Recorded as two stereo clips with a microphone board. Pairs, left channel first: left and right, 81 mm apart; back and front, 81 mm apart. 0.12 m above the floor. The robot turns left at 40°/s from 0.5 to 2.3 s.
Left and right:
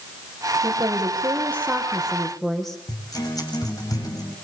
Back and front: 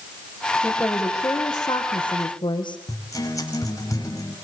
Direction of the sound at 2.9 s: 135° left.